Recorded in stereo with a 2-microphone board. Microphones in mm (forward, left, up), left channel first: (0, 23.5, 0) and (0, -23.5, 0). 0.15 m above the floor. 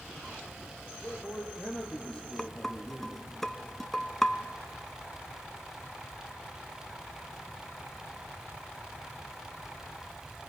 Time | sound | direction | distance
1.0 | a man speaking | 20° left (ahead or behind) | 5 m
2.4 | dishes clattering | 5° left (ahead or behind) | 0.9 m